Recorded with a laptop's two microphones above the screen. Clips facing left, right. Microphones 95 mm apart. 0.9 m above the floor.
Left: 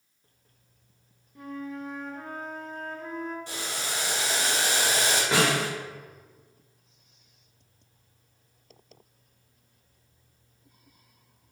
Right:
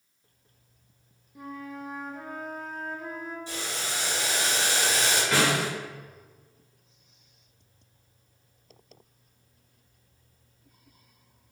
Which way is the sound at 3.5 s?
70° left (ahead or behind).